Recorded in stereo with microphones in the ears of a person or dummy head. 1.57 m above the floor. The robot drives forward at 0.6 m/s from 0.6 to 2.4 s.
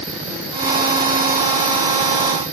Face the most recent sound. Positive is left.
No sound to turn to.